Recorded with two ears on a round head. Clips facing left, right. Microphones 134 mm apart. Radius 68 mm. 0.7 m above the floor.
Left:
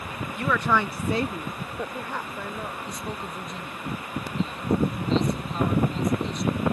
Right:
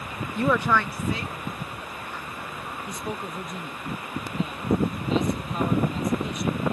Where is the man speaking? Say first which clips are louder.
Right 1 dB; 10° right (ahead or behind).